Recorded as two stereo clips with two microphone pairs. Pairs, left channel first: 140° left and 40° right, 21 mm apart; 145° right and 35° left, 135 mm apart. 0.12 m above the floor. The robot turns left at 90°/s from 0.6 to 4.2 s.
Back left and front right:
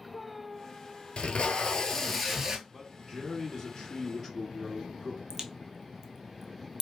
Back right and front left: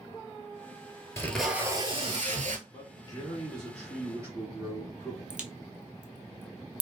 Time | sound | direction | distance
1.2 | tape being pulled | 150° left | 0.6 m
2.7 | a man speaking | 140° right | 1.6 m
5.3 | a crack | 25° left | 0.6 m